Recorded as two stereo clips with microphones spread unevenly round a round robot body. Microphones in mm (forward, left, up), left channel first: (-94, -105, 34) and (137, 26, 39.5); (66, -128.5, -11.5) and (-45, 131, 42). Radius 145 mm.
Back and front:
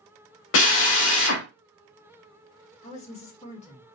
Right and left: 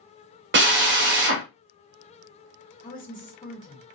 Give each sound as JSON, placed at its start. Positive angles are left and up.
{"t": 0.5, "sound": "a drill", "azimuth_deg": 170, "distance_m": 0.7}
{"t": 2.8, "sound": "a woman speaking", "azimuth_deg": -100, "distance_m": 1.6}